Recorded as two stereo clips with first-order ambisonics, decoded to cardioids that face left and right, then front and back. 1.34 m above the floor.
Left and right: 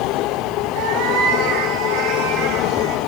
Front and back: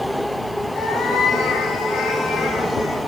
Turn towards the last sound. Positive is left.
turn(degrees=-55)